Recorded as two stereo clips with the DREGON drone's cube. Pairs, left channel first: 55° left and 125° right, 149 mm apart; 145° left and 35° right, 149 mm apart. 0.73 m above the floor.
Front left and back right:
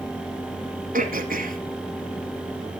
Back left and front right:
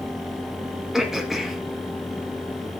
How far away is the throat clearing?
About 1.2 m.